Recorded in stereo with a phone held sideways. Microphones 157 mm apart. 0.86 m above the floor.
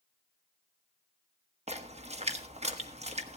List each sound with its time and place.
1.7 s a splash: 40° right (ahead or behind), 1.4 m